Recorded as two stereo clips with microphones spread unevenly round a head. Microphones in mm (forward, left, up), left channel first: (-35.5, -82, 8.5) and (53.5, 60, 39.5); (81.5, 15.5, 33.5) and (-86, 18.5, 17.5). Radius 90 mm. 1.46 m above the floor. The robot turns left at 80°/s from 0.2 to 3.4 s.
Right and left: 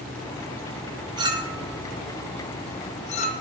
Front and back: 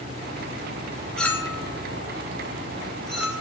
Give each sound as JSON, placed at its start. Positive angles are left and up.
{"t": 1.2, "sound": "a clink", "azimuth_deg": 75, "distance_m": 0.5}